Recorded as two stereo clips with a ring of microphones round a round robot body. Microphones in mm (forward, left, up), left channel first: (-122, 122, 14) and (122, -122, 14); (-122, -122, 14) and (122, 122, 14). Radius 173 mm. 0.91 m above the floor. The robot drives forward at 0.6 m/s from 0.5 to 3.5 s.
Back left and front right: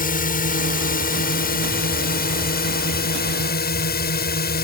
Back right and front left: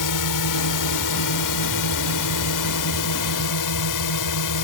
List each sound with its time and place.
0.0 s a drone: 160° right; by 4.6 s 165° right